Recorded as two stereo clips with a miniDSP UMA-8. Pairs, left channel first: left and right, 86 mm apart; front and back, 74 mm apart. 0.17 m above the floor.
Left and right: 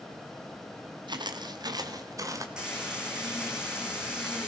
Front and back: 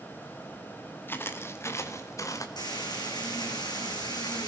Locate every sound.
1.1 s footsteps: 60° right, 3 m; by 2.5 s 40° right, 2.5 m
2.6 s frying: 10° right, 6.5 m